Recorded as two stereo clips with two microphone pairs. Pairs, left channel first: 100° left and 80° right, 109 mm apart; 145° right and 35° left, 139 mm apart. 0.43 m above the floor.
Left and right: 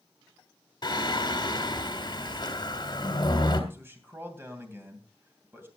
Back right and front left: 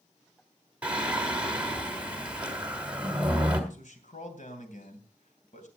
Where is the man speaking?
145° right, 2.5 m.